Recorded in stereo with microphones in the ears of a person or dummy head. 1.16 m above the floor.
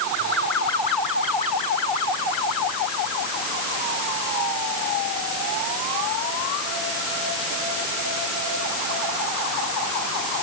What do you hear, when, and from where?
Only background noise.